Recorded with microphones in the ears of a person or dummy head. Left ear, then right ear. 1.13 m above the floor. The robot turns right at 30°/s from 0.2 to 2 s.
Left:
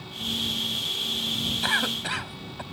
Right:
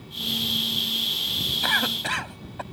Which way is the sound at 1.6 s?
5° right (ahead or behind).